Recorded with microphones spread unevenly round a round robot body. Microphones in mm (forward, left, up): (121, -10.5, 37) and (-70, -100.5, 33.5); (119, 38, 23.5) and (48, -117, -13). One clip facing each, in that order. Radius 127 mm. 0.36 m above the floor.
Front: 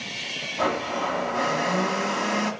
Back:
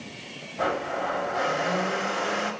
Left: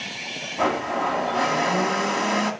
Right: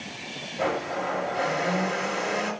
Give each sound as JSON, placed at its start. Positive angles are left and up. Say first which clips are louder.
{"t": 0.6, "sound": "a blender", "louder": "front 2 dB, left 4 dB", "azimuth_deg": 70, "distance_m": 1.9}